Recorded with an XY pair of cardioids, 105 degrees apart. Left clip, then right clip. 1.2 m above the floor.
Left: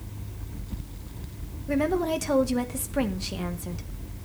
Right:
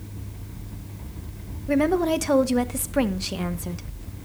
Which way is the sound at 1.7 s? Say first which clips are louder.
Right 4 dB; 25° right.